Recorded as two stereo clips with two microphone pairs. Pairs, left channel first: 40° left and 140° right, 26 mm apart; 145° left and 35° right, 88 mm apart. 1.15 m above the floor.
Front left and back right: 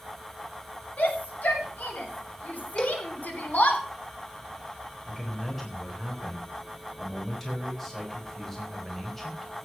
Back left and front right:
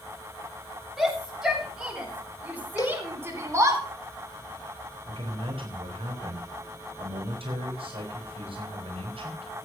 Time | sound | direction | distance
1.0 | a shout | 50° left | 7 m
2.8 | a cowbell | 90° left | 2.5 m
5.0 | a man speaking | 40° right | 4 m